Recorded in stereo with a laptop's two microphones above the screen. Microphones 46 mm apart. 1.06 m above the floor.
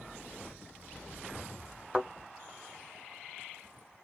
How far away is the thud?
About 1.9 m.